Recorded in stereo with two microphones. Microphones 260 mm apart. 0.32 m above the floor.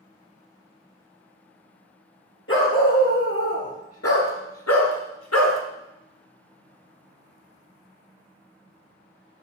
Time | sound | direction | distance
2.5 | a dog barking | 55° left (ahead or behind) | 2 m